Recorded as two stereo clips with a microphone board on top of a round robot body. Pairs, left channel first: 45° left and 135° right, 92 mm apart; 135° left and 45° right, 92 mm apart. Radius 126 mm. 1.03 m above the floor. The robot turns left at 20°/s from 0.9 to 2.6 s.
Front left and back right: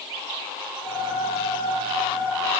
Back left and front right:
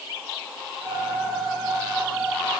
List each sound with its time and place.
Only background noise.